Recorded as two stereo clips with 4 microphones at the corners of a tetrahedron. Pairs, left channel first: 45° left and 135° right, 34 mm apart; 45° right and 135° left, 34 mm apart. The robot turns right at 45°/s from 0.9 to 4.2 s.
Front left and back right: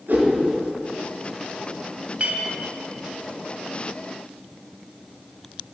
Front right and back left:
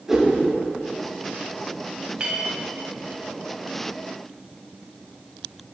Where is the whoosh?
150° right, 4 m.